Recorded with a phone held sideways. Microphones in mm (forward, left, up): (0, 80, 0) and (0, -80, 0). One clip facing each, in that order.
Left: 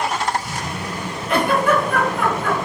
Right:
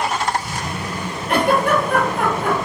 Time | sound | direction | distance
1.3 | a giggle | 60° right (ahead or behind) | 2 m